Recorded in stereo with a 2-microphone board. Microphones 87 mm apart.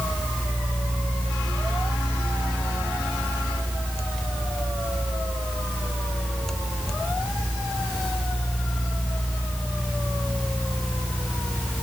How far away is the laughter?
No laughter in this recording.